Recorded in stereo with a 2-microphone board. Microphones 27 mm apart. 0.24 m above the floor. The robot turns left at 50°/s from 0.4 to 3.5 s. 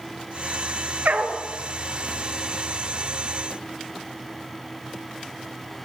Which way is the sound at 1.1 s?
75° right (ahead or behind).